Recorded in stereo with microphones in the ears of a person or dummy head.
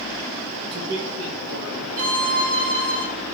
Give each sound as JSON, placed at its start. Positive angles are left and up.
{"t": 0.6, "sound": "a man speaking", "side_deg": -40, "distance_m": 1.3}
{"t": 2.0, "sound": "a violin", "side_deg": -45, "distance_m": 1.2}